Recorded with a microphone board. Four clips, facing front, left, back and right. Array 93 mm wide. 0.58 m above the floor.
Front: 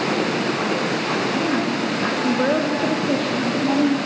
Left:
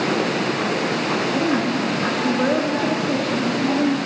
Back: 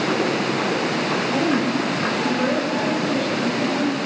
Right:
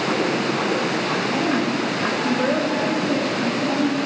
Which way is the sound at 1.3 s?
165° left.